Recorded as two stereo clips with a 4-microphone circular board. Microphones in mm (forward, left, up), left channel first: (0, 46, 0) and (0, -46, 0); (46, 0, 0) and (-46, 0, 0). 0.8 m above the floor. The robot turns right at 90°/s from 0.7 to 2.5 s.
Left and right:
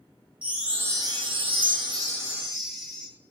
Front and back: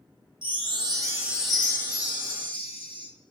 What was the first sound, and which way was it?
A chime, 165° right.